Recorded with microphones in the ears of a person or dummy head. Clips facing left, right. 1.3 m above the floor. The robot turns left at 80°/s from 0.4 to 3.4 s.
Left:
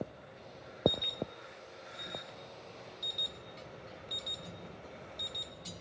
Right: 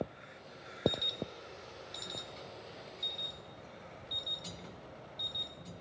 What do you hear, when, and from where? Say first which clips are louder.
0.9 s an alarm: left 2 dB; 10° right, 2.5 m; by 5.5 s 145° left, 2.5 m